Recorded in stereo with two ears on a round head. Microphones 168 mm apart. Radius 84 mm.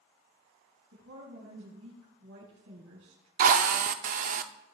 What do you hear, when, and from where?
0.9 s a woman speaking: 85° right, 5 m
3.4 s a drill: 45° right (ahead or behind), 0.6 m